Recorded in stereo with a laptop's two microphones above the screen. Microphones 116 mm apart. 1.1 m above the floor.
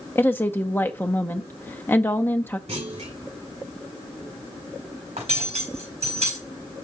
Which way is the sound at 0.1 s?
20° left (ahead or behind).